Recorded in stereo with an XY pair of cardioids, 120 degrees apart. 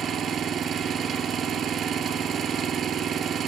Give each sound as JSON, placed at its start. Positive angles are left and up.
{"t": 0.0, "sound": "an engine running", "azimuth_deg": -55, "distance_m": 3.5}